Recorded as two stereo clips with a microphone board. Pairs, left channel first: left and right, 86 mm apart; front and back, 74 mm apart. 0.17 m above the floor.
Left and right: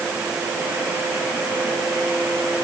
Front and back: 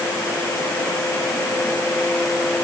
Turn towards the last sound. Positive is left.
No sound to turn to.